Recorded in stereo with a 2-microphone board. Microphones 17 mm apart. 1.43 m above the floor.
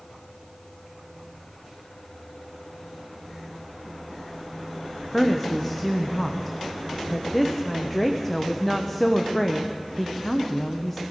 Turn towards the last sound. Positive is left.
turn(degrees=15)  # may be behind; listen again after turning